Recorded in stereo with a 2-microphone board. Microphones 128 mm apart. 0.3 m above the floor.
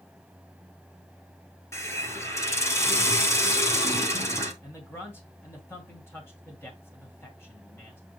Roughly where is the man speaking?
Centre.